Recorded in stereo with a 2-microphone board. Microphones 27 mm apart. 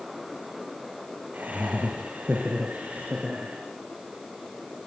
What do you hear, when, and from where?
1.3 s laughter: 65° right (ahead or behind), 4 m; by 3.6 s 55° right (ahead or behind), 4.5 m